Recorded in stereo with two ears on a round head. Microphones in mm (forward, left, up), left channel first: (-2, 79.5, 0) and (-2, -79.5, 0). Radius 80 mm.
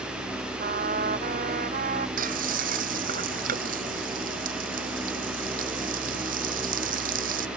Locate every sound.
0.6 s a trumpet: 50° right (ahead or behind)
2.2 s frying: 50° right (ahead or behind)